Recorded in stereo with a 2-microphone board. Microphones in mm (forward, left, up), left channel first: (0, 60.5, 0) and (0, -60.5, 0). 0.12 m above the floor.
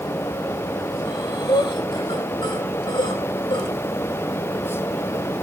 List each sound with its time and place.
1.1 s breathing: 40° left (ahead or behind), 4.5 m